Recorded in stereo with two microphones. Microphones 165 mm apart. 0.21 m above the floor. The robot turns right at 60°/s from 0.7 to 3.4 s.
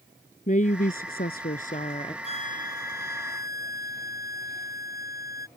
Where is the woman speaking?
60° left; by 2.1 s 145° left.